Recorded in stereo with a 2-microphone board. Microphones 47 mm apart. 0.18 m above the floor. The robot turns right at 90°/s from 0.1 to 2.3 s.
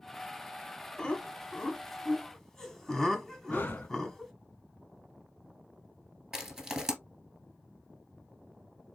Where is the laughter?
15° left (ahead or behind), 1.1 m; by 4.3 s 10° left (ahead or behind), 1.1 m.